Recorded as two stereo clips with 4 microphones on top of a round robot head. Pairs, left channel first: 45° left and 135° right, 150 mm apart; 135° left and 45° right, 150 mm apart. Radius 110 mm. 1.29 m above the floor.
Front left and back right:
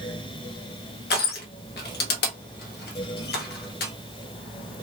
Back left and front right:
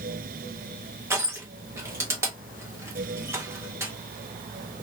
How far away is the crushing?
About 0.7 m.